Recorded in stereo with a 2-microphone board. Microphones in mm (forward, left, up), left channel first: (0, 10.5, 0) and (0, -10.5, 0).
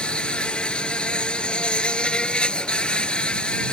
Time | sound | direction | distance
0.0 | an insect | 55° left (ahead or behind) | ?